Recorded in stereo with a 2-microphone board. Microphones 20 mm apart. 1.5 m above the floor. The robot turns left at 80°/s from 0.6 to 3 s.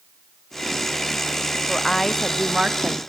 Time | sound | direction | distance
1.7 | a woman speaking | 35° left | 0.6 m